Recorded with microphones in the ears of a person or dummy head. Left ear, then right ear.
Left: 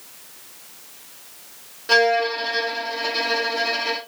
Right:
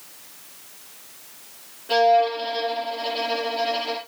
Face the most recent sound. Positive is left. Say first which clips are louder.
# even
turn(degrees=60)  # may be behind; listen again after turning